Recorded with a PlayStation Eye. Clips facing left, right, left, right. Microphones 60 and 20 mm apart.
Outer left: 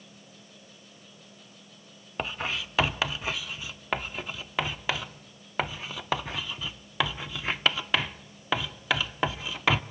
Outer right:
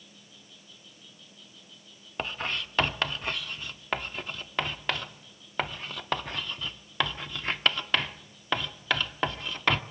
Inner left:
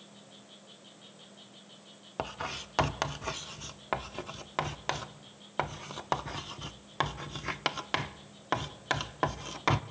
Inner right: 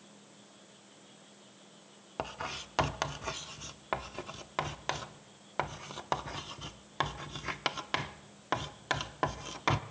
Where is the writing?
5° left (ahead or behind), 0.5 m.